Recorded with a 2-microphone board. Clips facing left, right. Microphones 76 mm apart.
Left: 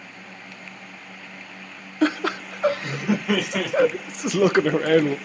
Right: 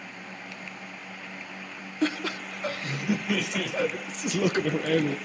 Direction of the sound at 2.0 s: 70° left (ahead or behind).